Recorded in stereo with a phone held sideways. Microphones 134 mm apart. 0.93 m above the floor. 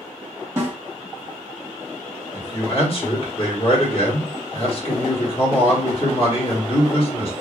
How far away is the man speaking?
About 1.3 m.